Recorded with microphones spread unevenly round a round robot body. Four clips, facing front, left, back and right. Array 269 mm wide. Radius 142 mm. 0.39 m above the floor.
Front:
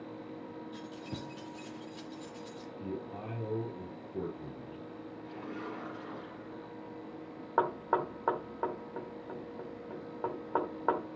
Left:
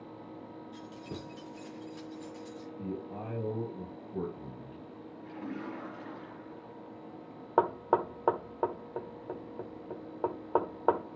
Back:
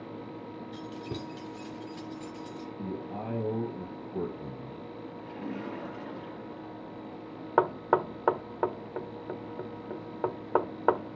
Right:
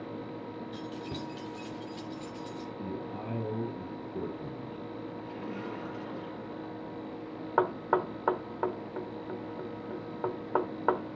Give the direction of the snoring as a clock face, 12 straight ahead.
I don't hear snoring.